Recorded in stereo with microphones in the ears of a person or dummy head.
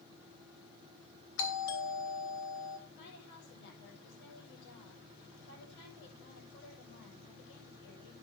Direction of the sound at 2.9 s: 60° left (ahead or behind).